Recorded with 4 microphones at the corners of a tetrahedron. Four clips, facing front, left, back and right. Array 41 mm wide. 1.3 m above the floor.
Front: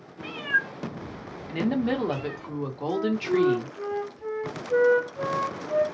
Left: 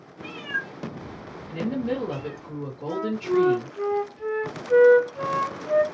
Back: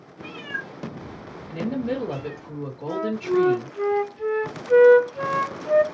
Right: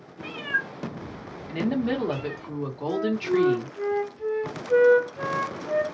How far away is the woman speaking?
About 1.1 m.